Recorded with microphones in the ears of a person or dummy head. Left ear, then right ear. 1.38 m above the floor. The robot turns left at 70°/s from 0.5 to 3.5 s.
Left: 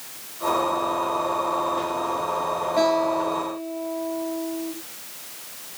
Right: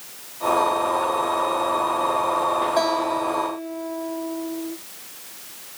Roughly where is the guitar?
Ahead right.